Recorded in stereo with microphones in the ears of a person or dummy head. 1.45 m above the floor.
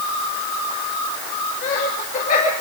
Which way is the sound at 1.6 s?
50° left (ahead or behind).